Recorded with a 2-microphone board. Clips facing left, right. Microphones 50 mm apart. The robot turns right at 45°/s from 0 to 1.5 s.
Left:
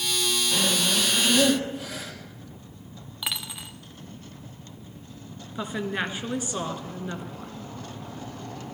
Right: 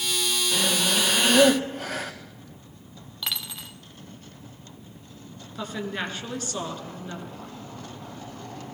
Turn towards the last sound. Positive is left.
turn(degrees=15)  # may be behind; listen again after turning